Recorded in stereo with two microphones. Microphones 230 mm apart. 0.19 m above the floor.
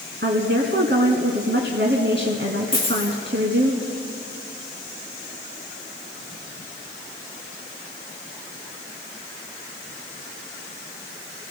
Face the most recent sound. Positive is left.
turn(degrees=25)  # may be behind; listen again after turning